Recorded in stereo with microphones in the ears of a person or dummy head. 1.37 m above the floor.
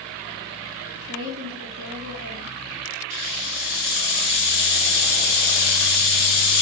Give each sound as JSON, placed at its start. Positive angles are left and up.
{"t": 0.9, "sound": "a woman speaking", "side_deg": -70, "distance_m": 3.0}
{"t": 3.1, "sound": "a hiss", "side_deg": -60, "distance_m": 3.5}